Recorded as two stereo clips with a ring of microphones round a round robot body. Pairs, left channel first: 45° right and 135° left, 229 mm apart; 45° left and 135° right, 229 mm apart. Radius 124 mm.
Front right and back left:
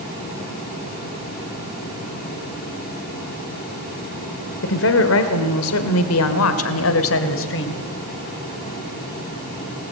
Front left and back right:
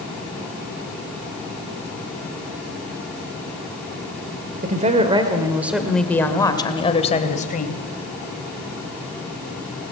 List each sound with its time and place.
4.6 s a woman speaking: 80° right, 2 m; by 7.8 s 10° right, 3 m